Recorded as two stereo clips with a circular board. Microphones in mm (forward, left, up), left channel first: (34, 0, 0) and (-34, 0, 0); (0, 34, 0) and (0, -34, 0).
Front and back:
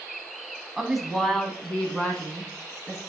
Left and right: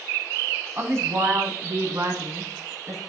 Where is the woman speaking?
95° right, 1.4 m; by 3.0 s 65° right, 2.5 m.